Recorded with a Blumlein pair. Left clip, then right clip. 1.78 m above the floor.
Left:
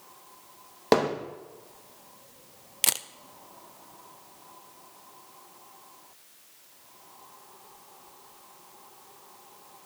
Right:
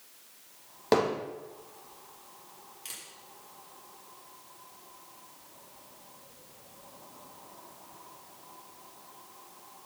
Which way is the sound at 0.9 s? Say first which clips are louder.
Left 3 dB; 15° left.